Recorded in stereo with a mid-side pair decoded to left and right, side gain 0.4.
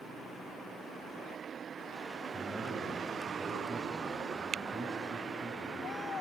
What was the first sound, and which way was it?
A man speaking, straight ahead.